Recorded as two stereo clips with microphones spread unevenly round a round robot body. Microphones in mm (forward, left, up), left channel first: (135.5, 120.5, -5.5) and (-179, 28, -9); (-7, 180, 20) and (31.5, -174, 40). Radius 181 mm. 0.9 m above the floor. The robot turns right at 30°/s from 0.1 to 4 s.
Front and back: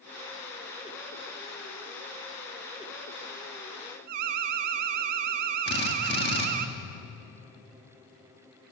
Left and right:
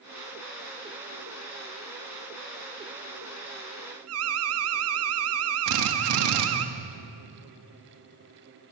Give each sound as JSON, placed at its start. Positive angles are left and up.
{"t": 4.1, "sound": "an alarm", "azimuth_deg": -140, "distance_m": 0.8}
{"t": 5.7, "sound": "a drill", "azimuth_deg": -45, "distance_m": 2.0}